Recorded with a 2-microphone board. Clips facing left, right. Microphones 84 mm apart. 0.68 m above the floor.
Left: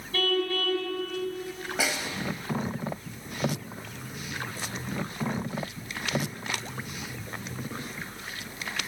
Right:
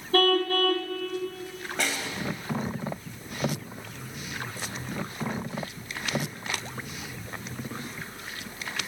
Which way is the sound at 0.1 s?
45° right (ahead or behind).